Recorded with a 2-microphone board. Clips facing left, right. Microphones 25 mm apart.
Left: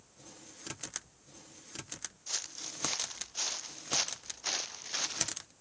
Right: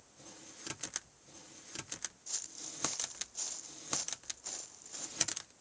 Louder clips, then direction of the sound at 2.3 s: Left 9 dB; 35° left (ahead or behind).